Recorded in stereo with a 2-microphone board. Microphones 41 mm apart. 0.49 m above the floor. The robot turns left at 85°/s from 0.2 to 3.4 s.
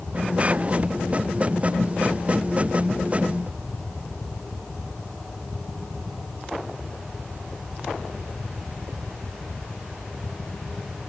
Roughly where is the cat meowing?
No cat meowing in this recording.